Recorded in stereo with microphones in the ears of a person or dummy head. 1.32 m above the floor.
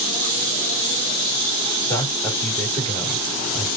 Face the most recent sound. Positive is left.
turn(degrees=15)  # may be behind; listen again after turning